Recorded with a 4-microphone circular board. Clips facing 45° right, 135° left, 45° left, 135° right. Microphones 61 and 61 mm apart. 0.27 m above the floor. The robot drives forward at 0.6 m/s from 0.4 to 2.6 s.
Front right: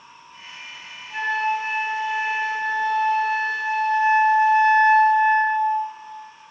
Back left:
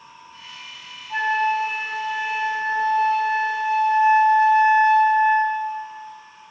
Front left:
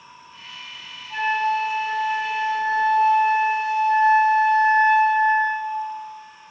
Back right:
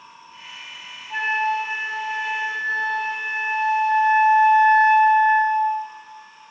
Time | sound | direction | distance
1.1 | a flute | 170° left | 0.6 m